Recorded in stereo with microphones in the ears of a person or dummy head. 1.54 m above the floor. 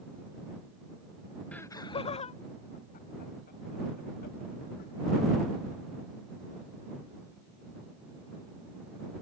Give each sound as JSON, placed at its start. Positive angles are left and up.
{"t": 1.5, "sound": "laughter", "side_deg": 10}